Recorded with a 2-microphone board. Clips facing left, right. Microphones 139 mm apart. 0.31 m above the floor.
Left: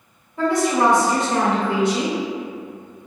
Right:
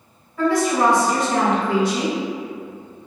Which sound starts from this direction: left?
A woman speaking, at 0.4 s.